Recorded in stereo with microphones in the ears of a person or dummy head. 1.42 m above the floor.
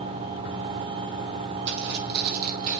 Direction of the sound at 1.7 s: 55° right (ahead or behind).